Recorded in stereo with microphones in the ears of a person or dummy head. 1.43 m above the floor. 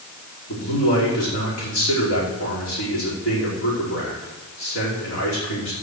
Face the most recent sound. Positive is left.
turn(degrees=65)  # may be behind; listen again after turning